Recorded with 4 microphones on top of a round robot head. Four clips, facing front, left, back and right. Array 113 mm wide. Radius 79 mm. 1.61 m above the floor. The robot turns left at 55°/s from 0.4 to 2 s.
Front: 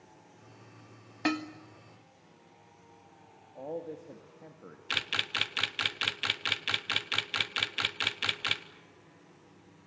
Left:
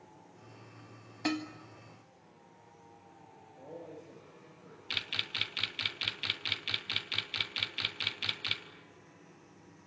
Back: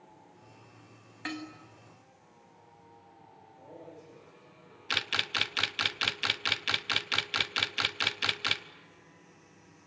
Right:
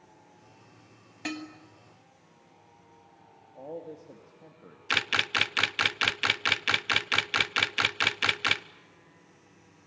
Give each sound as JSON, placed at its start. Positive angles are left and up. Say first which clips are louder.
{"t": 1.2, "sound": "dishes clattering", "louder": "left 3 dB, front 8 dB", "azimuth_deg": 20, "distance_m": 1.3}
{"t": 3.5, "sound": "a man speaking", "louder": "right 6 dB, front 10 dB", "azimuth_deg": -30, "distance_m": 2.5}
{"t": 4.9, "sound": "a camera shutter", "louder": "right 14 dB, back 2 dB", "azimuth_deg": -100, "distance_m": 0.9}